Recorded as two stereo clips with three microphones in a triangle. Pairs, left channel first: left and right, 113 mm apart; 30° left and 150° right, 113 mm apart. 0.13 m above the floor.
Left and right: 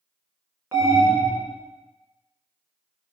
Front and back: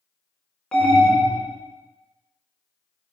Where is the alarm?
40° right, 1.8 m.